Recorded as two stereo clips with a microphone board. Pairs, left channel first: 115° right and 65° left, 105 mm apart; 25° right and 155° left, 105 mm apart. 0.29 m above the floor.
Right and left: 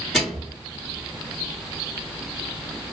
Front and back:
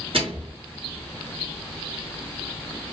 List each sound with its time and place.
0.1 s a microwave: 155° left, 2.5 m